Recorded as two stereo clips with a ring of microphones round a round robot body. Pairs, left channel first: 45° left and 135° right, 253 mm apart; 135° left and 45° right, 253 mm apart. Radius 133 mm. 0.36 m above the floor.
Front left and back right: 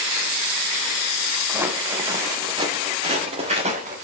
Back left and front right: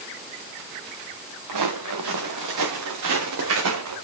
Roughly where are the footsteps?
Ahead right.